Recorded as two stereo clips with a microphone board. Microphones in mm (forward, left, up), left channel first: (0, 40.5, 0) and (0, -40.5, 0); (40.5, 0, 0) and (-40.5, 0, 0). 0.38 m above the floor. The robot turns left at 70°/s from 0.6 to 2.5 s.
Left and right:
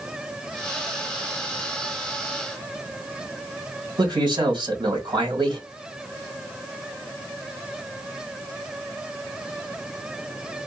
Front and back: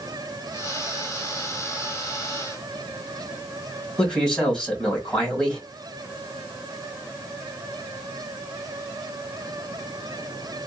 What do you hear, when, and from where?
4.0 s a man speaking: 80° right, 2 m